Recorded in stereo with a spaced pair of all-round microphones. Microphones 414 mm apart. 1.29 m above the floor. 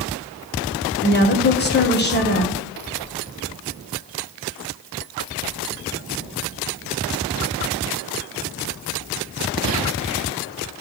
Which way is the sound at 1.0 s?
25° left (ahead or behind).